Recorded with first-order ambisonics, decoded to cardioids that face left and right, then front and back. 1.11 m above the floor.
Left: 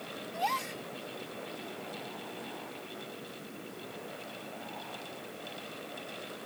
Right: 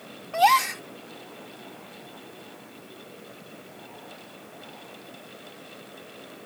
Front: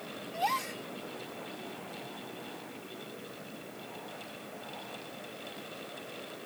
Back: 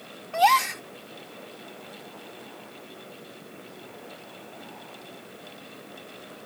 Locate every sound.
0.3 s a gasp: 135° right